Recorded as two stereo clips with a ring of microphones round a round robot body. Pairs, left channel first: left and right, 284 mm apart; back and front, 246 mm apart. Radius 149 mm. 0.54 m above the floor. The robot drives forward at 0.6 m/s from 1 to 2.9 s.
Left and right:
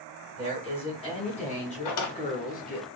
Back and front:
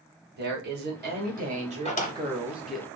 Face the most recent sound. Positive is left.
turn(degrees=140)